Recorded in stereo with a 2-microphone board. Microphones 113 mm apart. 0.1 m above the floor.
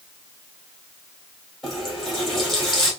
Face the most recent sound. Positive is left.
turn(degrees=0)  # may be behind; listen again after turning